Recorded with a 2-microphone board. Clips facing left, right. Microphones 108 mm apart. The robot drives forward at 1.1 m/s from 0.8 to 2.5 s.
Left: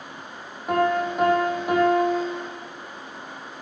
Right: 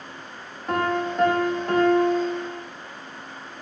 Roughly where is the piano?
Centre.